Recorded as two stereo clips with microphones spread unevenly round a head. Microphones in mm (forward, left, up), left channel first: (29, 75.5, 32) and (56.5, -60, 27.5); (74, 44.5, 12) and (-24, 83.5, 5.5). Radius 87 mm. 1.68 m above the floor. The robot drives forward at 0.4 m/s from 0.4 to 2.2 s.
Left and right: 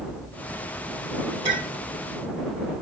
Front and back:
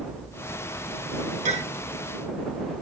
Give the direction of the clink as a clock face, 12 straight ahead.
7 o'clock.